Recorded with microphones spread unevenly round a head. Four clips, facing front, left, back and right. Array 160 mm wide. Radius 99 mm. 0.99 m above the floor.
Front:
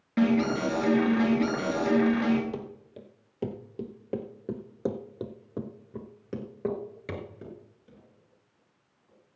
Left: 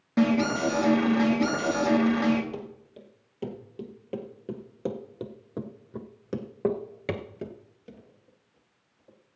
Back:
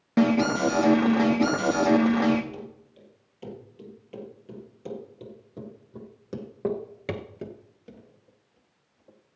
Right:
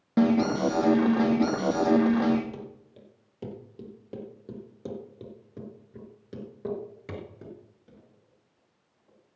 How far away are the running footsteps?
About 2.5 m.